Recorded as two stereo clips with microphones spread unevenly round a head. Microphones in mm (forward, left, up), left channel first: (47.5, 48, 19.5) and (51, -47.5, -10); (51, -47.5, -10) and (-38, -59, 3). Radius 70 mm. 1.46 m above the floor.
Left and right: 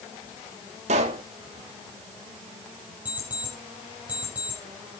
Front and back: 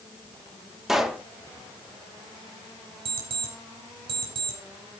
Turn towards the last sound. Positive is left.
turn(degrees=-175)